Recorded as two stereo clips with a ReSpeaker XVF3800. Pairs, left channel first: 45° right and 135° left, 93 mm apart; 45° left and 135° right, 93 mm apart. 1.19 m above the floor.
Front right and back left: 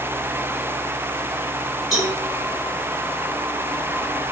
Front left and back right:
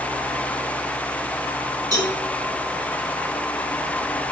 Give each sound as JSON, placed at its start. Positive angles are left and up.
{"t": 1.9, "sound": "a cowbell", "azimuth_deg": -145, "distance_m": 1.2}